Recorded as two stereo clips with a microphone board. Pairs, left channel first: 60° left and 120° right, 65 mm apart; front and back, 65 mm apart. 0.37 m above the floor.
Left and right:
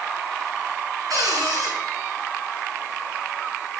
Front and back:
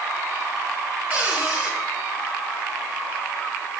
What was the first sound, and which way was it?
A cupboard door, 120° right.